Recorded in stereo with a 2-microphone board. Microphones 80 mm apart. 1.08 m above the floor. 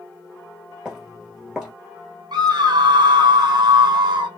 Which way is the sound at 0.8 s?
5° right (ahead or behind).